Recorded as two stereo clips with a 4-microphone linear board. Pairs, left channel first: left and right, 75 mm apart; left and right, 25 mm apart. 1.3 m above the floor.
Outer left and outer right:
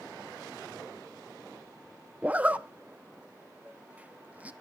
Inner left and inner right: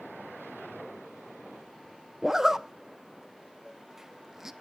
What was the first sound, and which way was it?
A zipper, 20° right (ahead or behind).